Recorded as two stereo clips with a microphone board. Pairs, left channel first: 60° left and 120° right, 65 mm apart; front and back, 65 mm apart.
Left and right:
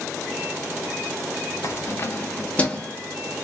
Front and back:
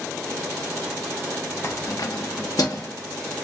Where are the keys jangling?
35° left, 0.6 m; by 2.9 s 15° right, 1.1 m.